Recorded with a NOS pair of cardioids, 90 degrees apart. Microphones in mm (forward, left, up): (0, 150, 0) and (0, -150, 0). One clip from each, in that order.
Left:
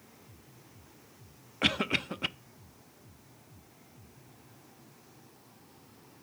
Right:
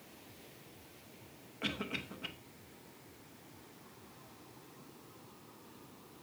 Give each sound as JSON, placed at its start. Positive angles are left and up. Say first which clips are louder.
{"t": 1.6, "sound": "a cough", "louder": "left 11 dB", "azimuth_deg": 50, "distance_m": 0.6}